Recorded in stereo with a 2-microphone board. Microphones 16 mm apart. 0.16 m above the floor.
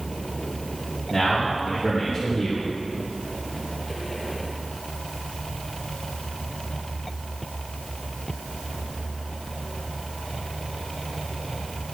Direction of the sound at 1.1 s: 15° right (ahead or behind).